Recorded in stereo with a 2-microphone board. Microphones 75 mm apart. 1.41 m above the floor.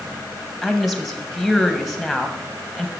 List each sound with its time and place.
0.6 s a woman speaking: centre (ahead or behind), 2.0 m